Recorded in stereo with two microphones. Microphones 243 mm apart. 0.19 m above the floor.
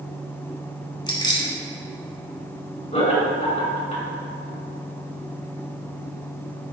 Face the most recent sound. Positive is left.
turn(degrees=30)  # may be behind; listen again after turning